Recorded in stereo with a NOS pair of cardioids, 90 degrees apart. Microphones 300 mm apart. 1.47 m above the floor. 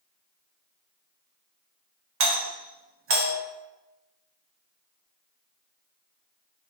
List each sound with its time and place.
2.2 s a doorbell: 50° right, 0.8 m